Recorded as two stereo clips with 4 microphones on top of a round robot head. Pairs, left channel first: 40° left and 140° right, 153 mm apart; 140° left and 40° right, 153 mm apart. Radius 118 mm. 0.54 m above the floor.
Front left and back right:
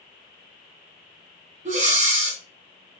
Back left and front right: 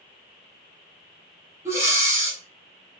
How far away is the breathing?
About 1.8 m.